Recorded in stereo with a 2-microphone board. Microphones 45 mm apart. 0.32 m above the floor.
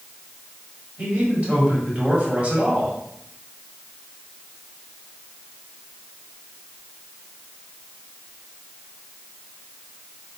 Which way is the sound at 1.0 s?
30° right (ahead or behind).